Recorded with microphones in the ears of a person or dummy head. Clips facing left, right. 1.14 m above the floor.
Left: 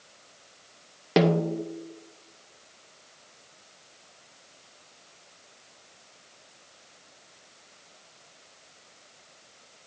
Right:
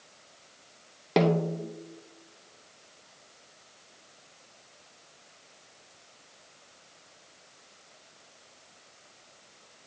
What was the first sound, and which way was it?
A snare drum, 10° left (ahead or behind).